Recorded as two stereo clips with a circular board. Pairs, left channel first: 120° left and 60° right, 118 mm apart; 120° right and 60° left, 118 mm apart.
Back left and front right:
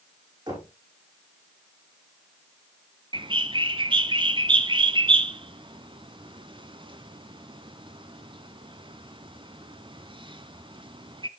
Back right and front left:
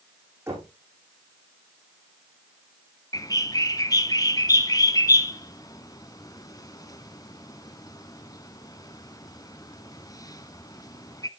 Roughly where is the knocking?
Ahead.